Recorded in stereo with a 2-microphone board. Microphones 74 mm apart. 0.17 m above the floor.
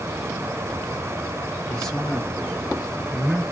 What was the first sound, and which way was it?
A man speaking, 10° left (ahead or behind).